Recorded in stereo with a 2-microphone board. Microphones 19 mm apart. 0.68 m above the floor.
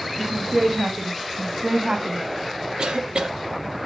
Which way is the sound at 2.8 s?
50° right (ahead or behind).